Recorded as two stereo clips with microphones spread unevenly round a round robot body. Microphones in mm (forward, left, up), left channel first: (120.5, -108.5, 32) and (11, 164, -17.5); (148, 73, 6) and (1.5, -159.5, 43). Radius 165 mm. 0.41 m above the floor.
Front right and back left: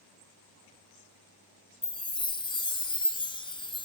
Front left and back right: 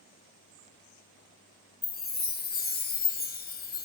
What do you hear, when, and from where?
1.8 s a chime: 10° left, 2.5 m